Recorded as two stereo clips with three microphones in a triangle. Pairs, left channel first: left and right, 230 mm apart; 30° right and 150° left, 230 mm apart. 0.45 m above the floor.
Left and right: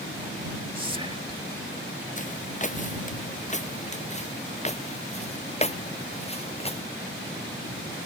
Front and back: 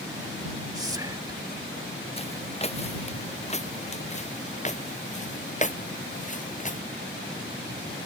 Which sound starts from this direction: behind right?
Whispering, at 0.8 s.